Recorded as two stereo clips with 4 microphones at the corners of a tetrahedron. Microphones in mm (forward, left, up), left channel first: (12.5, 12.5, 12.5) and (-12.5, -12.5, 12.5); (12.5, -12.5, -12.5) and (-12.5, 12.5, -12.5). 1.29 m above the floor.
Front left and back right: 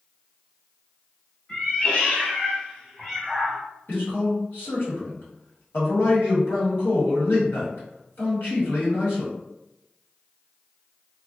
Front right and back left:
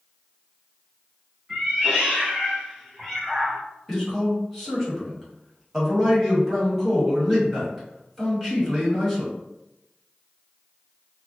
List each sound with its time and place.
1.5 s a cat meowing: 80° left, 1.4 m; by 3.6 s 95° right, 1.0 m
3.9 s a man speaking: 45° left, 1.5 m